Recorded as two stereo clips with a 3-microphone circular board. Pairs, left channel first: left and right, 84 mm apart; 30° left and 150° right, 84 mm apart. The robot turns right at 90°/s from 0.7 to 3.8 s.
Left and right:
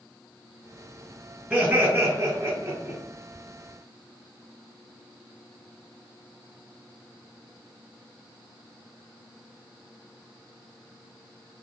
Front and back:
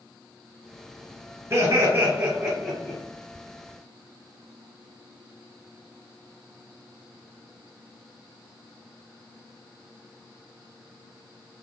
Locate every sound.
1.5 s laughter: 155° right, 1.7 m; by 3.0 s 20° right, 1.7 m